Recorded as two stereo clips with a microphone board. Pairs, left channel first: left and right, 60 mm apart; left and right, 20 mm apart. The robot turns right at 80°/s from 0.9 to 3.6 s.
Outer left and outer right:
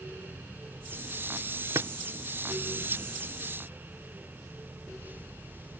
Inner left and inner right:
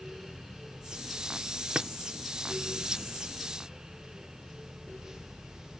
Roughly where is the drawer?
Right.